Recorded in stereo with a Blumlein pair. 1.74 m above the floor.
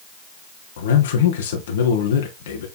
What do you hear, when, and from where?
0.8 s a man speaking: 60° left, 1.7 m